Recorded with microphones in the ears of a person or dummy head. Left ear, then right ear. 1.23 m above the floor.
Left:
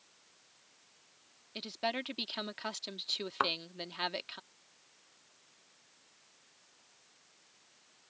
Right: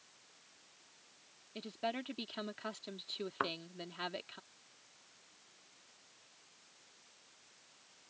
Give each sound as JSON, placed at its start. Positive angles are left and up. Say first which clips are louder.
{"t": 1.6, "sound": "a woman speaking", "louder": "left 4 dB", "side_deg": 35}
{"t": 3.4, "sound": "a thud", "louder": "left 6 dB", "side_deg": 35}